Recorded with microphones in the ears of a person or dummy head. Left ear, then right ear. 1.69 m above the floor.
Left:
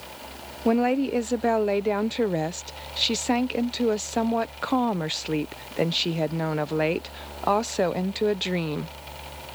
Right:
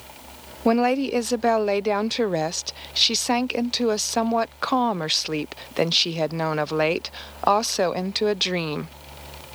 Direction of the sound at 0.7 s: 35° right (ahead or behind).